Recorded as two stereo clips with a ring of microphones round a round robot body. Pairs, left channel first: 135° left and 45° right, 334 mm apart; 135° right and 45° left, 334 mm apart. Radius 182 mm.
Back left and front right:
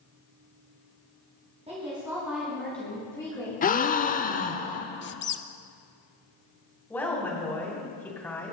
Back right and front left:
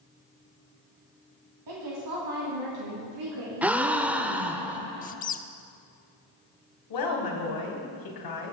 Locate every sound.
1.7 s a woman speaking: 25° left, 2.5 m; by 4.6 s 65° left, 4.5 m
3.6 s a gasp: 125° left, 0.6 m
5.0 s a squeak: 170° left, 0.5 m
6.9 s a woman speaking: 140° right, 2.5 m